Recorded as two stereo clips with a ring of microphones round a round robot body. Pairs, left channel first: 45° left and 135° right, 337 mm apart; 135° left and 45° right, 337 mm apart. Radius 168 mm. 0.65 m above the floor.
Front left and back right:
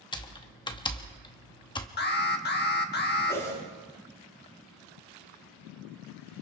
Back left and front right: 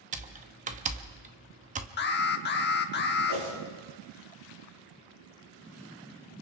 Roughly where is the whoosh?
Ahead right.